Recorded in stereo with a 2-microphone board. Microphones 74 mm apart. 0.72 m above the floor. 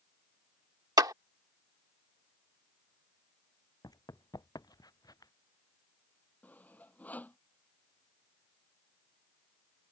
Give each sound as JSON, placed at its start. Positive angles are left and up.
{"t": 1.0, "sound": "a clap", "side_deg": -70}
{"t": 3.8, "sound": "running footsteps", "side_deg": 70}
{"t": 6.4, "sound": "sawing", "side_deg": 25}